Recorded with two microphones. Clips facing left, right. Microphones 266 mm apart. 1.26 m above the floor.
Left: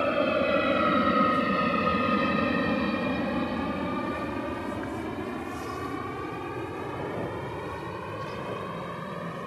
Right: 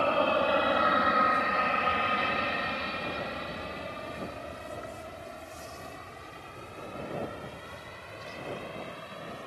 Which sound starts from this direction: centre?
An aircraft, at 0.0 s.